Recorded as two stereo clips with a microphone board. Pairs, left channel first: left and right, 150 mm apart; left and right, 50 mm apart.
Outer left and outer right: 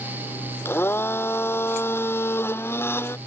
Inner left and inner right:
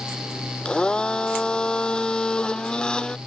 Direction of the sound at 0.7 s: 15° left (ahead or behind).